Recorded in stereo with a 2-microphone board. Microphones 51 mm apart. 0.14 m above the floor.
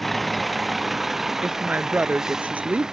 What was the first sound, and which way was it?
A vehicle, centre (ahead or behind).